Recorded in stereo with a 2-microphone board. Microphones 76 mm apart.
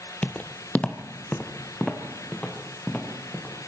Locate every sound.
0.2 s footsteps: 20° left (ahead or behind), 0.9 m; by 3.5 s 10° left (ahead or behind), 4.5 m